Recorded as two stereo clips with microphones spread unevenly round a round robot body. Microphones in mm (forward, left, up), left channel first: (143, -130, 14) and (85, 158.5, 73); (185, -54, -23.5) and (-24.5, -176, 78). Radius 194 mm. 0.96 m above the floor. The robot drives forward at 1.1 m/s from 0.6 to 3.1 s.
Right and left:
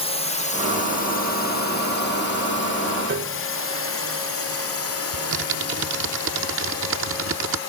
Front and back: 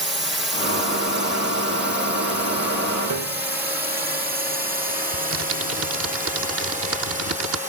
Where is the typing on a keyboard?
160° left.